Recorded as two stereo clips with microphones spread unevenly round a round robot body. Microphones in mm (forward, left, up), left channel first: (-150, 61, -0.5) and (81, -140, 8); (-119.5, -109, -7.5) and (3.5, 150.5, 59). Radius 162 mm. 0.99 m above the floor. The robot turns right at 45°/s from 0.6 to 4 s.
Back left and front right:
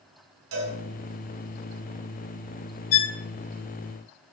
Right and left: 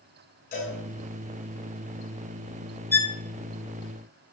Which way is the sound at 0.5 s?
50° right.